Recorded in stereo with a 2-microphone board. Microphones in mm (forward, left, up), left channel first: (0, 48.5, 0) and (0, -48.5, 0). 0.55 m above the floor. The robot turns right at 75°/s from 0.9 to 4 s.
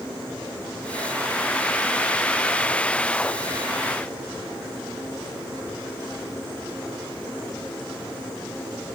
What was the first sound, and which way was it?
Only background noise.